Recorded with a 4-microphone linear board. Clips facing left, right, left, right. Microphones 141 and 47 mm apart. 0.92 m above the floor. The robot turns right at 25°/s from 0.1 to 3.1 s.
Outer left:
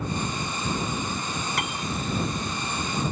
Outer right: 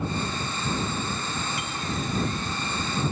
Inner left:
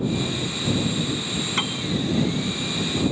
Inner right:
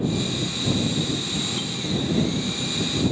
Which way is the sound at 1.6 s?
75° left (ahead or behind).